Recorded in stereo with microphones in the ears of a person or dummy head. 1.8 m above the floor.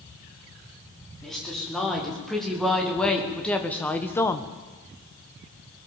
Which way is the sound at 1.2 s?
Centre (ahead or behind).